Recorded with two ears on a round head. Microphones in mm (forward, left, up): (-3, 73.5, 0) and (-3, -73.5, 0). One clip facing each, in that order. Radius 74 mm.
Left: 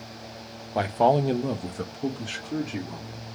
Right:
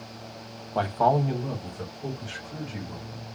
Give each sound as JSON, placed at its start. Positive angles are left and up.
{"t": 0.8, "sound": "a man speaking", "side_deg": 10, "distance_m": 0.5}